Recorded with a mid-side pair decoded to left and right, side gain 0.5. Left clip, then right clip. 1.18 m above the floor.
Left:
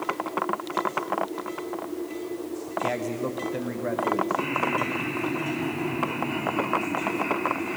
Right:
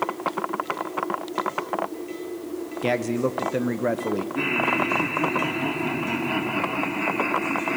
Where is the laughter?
65° right, 2.5 m.